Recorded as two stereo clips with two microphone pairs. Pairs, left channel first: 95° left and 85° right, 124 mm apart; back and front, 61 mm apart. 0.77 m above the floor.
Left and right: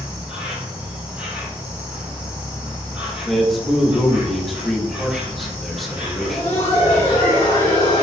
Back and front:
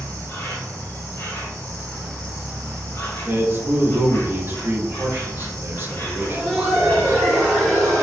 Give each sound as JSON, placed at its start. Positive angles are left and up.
{"t": 0.0, "sound": "an insect", "azimuth_deg": -160, "distance_m": 1.4}
{"t": 3.2, "sound": "a man speaking", "azimuth_deg": 5, "distance_m": 0.8}
{"t": 6.2, "sound": "laughter", "azimuth_deg": 100, "distance_m": 1.9}